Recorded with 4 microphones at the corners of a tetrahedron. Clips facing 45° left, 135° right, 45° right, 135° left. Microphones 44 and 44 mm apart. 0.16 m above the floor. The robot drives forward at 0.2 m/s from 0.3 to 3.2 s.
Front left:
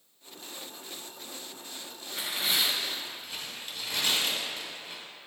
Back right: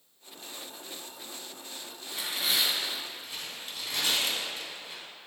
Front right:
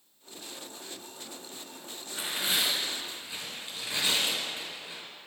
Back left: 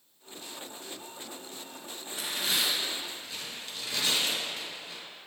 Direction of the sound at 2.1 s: 40° right.